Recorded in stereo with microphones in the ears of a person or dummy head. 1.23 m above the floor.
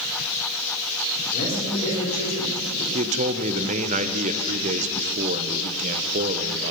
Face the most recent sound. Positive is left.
turn(degrees=-45)  # may be behind; listen again after turning